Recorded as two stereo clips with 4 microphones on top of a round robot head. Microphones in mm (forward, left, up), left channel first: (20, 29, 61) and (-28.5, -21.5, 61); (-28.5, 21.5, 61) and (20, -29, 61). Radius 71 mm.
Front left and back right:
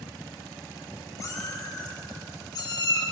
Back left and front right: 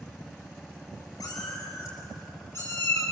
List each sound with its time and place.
1.2 s a cat meowing: 90° left, 4.5 m; by 3.0 s 70° left, 5.5 m